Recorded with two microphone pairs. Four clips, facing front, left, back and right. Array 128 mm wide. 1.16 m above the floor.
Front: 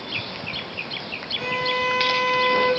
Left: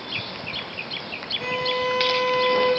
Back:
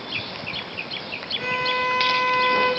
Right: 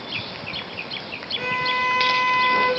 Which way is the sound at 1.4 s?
85° right.